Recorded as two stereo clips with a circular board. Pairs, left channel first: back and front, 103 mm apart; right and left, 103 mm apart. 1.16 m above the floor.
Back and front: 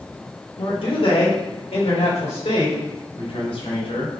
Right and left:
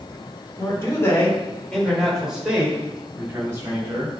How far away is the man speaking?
About 3 m.